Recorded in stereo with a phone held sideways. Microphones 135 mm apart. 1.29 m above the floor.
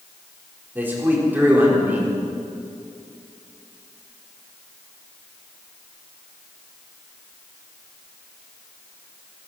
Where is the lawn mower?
No lawn mower in this recording.